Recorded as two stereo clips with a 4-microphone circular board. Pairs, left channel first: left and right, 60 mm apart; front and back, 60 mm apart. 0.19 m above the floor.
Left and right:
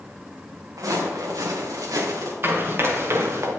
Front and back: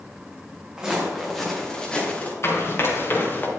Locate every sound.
0.8 s footsteps: 100° right, 4 m; by 2.3 s 65° right, 3.5 m
2.4 s running footsteps: 40° right, 4 m; by 3.5 s 55° right, 2.5 m